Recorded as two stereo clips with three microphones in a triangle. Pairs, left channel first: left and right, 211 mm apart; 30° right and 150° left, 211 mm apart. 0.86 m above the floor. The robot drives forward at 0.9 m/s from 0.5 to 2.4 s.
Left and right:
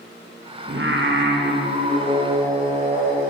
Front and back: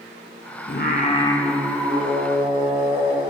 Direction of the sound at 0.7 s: 60° right.